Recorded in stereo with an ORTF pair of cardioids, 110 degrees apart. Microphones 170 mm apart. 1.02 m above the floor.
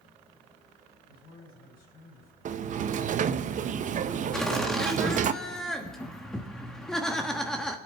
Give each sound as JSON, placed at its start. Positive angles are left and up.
{"t": 1.1, "sound": "a man speaking", "azimuth_deg": 65, "distance_m": 5.5}
{"t": 2.5, "sound": "a sliding door", "azimuth_deg": -50, "distance_m": 0.7}
{"t": 4.3, "sound": "laughter", "azimuth_deg": 5, "distance_m": 1.3}